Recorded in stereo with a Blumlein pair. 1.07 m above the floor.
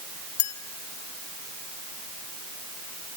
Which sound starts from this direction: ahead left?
A clink, at 0.4 s.